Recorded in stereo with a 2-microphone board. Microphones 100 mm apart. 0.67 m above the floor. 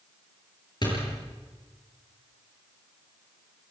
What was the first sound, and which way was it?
A door slam, 50° left (ahead or behind).